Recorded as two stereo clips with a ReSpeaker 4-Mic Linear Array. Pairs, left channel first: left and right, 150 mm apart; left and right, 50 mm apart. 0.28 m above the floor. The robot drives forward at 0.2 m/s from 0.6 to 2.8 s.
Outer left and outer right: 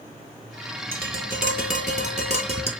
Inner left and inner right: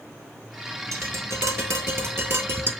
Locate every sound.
0.9 s tapping: 70° right (ahead or behind), 0.6 m; by 2.7 s 45° right (ahead or behind), 0.8 m